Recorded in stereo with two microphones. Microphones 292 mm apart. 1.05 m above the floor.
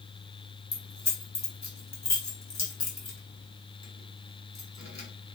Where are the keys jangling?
65° left (ahead or behind), 1.1 m.